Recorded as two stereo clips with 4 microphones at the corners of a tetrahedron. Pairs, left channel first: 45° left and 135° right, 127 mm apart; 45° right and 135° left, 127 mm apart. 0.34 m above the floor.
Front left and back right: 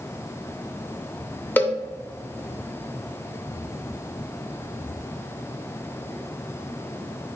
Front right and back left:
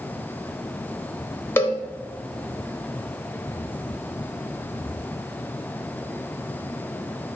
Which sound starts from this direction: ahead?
A cowbell, at 1.6 s.